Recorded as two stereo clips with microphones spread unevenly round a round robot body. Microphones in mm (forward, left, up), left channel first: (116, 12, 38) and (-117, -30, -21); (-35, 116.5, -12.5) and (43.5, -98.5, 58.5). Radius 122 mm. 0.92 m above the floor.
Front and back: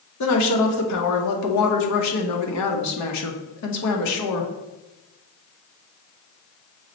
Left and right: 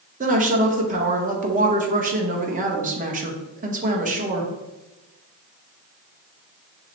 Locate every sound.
0.2 s a woman speaking: 5° right, 1.0 m